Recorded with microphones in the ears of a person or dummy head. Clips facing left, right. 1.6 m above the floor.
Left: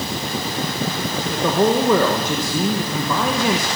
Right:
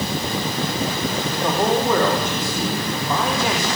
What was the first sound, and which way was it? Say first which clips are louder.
A man speaking: left 4 dB; 75° left (ahead or behind).